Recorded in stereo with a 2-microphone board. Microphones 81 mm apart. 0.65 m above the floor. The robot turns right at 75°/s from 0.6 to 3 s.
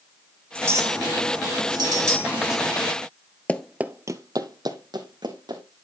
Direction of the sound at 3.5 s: 15° left (ahead or behind).